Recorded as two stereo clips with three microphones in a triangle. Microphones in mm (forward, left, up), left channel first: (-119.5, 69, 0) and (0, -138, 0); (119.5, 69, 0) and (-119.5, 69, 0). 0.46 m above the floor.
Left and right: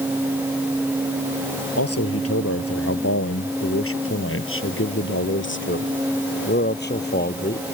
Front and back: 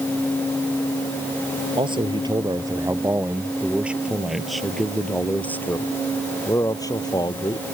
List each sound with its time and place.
1.8 s a man speaking: 110° left; by 7.7 s 70° left